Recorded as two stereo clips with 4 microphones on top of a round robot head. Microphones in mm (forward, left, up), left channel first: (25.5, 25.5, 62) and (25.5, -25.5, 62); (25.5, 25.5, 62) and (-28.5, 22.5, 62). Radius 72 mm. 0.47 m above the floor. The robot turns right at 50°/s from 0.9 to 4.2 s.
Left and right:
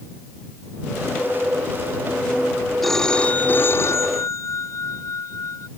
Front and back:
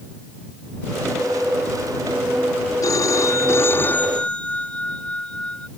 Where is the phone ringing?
5° left; by 5.7 s 70° left.